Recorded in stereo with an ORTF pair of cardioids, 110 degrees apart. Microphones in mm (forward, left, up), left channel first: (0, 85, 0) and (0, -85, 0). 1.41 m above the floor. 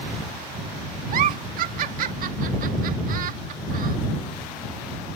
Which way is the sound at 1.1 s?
55° right.